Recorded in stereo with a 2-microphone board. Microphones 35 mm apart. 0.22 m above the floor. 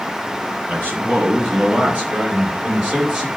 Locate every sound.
0.7 s a man speaking: 55° right (ahead or behind), 3 m; by 3.3 s 35° right (ahead or behind), 3.5 m